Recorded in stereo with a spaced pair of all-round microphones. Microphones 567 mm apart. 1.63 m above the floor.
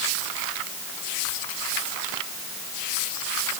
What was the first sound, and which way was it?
Only background noise.